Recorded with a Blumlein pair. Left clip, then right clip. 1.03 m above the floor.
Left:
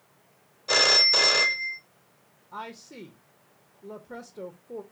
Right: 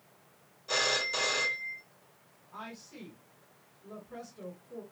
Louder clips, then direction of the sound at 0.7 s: Left 10 dB; 65° left.